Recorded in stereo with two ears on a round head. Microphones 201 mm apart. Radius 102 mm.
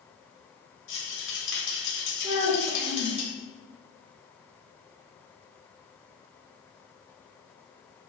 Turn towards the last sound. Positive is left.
turn(degrees=-15)  # may be behind; listen again after turning